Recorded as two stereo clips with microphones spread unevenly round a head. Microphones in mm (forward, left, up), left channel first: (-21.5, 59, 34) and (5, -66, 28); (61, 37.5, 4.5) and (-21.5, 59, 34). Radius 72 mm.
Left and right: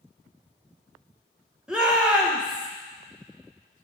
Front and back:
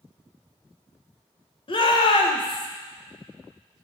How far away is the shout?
About 1.7 m.